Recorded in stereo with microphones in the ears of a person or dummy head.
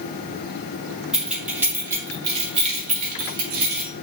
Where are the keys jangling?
5° right (ahead or behind), 1.6 m; by 3.9 s 65° right (ahead or behind), 1.8 m.